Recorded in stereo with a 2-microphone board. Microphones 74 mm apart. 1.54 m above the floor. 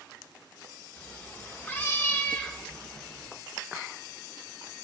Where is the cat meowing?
25° left (ahead or behind), 0.9 m; by 3.3 s 15° left (ahead or behind), 1.4 m.